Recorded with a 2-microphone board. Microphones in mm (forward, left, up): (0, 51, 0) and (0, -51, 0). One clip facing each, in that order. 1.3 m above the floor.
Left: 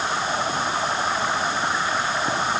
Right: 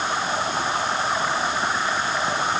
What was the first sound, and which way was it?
Only background noise.